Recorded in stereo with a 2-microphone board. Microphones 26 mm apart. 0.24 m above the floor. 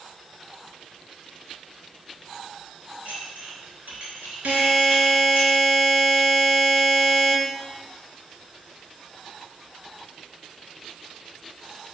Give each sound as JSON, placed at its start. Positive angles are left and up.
{"t": 3.0, "sound": "dishes clattering", "side_deg": -70, "distance_m": 2.5}
{"t": 4.5, "sound": "a buzzer", "side_deg": -70, "distance_m": 2.0}